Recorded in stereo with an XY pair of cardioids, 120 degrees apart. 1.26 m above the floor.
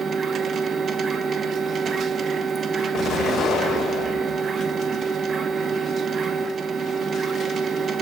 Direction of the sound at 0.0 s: 40° right.